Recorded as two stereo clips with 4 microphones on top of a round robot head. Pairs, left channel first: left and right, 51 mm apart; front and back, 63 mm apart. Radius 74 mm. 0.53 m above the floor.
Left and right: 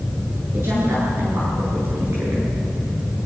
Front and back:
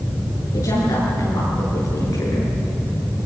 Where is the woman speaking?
45° right, 9.5 m.